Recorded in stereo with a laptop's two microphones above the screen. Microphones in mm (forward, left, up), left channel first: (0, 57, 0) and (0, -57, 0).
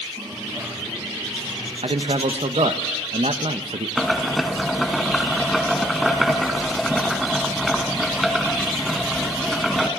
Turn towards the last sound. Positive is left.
turn(degrees=0)  # may be behind; listen again after turning